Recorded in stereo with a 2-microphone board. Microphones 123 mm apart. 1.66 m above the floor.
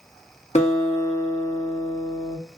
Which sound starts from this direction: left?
A guitar, at 0.6 s.